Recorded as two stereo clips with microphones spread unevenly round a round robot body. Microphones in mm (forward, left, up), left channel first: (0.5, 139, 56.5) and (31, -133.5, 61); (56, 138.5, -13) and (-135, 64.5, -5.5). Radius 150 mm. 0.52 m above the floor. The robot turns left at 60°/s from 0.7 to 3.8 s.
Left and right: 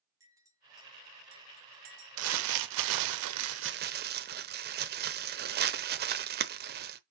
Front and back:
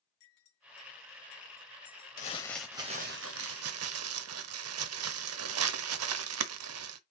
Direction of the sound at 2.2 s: 45° right.